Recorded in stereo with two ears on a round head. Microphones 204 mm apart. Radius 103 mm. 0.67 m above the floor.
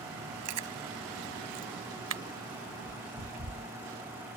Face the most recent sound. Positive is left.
turn(degrees=-70)  # may be behind; listen again after turning